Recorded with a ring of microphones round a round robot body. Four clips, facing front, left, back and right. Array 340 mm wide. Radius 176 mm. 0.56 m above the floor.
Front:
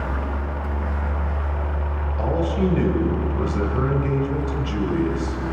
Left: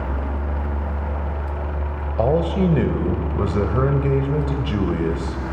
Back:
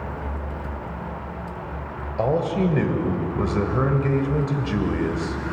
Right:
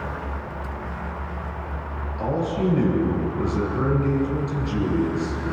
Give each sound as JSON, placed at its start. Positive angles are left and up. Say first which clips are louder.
{"t": 2.2, "sound": "a man speaking", "louder": "left 5 dB, back 1 dB", "azimuth_deg": 110, "distance_m": 2.5}